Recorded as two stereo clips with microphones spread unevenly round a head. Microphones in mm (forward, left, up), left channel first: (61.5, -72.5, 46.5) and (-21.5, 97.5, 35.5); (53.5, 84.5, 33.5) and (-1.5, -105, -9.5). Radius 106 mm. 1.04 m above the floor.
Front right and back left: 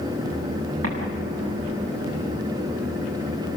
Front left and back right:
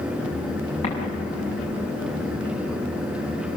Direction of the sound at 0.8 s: 135° left.